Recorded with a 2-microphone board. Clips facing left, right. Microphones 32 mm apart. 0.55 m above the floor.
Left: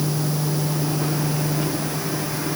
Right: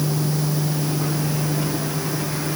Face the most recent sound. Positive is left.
No sound to turn to.